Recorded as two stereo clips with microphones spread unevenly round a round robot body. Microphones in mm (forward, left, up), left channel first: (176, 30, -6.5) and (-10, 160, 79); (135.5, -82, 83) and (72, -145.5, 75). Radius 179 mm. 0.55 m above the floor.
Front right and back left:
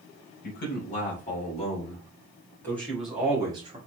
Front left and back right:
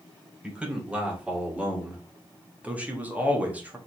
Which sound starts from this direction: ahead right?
A man speaking, at 0.4 s.